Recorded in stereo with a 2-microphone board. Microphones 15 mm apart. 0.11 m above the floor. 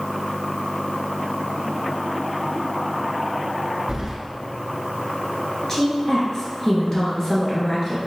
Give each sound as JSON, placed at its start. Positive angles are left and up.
{"t": 3.9, "sound": "keys jangling", "side_deg": -35, "distance_m": 1.0}
{"t": 5.7, "sound": "a woman speaking", "side_deg": 35, "distance_m": 1.6}